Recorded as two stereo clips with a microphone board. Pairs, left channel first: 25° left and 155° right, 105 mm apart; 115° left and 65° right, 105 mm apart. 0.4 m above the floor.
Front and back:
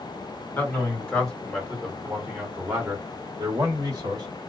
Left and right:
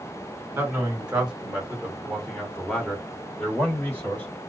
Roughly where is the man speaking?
Ahead.